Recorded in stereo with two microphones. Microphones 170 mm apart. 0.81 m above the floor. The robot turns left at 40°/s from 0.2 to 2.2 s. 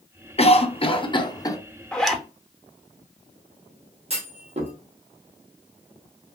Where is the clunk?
40° right (ahead or behind), 1.1 m.